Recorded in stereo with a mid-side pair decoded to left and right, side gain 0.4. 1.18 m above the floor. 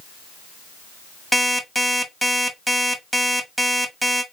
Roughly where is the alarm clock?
Ahead.